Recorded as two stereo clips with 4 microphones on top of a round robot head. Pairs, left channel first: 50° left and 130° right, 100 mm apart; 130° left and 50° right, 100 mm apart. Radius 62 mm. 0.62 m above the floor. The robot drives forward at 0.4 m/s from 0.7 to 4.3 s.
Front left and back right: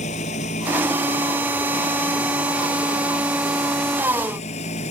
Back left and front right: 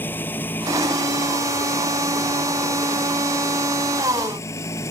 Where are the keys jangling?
I don't hear keys jangling.